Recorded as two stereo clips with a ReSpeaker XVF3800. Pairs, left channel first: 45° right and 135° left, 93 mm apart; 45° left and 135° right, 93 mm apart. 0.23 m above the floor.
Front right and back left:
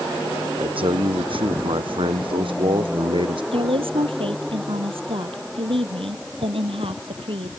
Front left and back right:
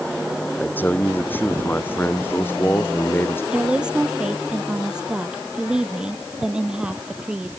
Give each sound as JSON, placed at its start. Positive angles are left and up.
{"t": 0.6, "sound": "a man speaking", "azimuth_deg": 115}
{"t": 3.5, "sound": "a woman speaking", "azimuth_deg": 145}